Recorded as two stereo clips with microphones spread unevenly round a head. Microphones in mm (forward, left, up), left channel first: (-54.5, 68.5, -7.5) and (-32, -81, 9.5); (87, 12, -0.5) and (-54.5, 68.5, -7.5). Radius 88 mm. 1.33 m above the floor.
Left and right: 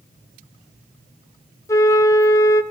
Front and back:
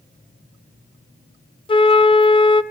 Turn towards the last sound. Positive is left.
turn(degrees=25)